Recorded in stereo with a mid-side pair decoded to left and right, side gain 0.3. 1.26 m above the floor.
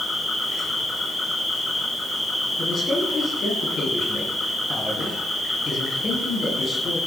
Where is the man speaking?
60° left, 9.5 m.